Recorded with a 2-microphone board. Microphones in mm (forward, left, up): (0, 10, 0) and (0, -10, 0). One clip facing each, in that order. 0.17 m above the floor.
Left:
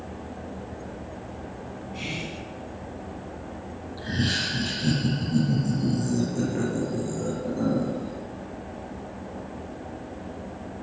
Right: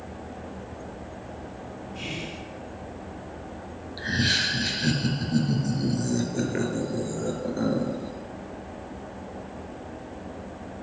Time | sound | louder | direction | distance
1.9 | whispering | left 2 dB | 30° left (ahead or behind) | 1.6 m
4.0 | laughter | right 3 dB | 40° right (ahead or behind) | 3.5 m